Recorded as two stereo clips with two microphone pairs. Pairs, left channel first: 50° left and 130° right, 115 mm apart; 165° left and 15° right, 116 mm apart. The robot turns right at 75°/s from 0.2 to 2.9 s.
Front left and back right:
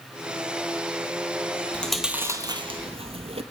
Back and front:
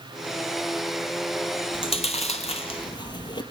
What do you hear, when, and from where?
1.7 s chewing: 125° left, 0.8 m; by 3.4 s 145° right, 0.8 m